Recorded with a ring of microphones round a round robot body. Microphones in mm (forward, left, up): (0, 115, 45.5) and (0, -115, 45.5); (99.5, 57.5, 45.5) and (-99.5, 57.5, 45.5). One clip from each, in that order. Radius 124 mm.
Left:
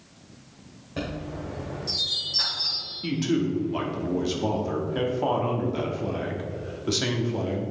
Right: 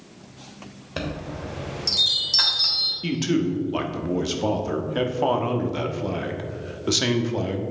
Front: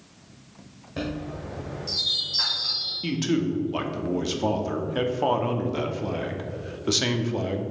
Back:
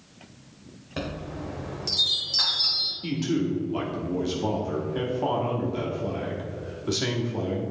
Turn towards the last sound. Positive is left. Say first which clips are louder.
# right 2 dB, front 1 dB
turn(degrees=-30)